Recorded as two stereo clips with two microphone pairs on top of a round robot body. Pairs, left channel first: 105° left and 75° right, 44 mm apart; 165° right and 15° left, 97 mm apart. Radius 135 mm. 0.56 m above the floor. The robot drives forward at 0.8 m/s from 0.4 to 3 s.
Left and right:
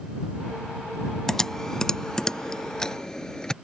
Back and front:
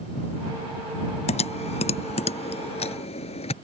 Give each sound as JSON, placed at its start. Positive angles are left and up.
{"t": 1.3, "sound": "typing on a keyboard", "azimuth_deg": -170}